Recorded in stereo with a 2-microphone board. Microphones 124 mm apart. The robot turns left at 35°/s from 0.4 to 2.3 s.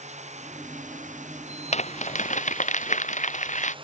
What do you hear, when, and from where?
0.0 s running water: 70° right; by 3.9 s 135° right
1.7 s crumpling: 65° left (ahead or behind); by 3.8 s 85° left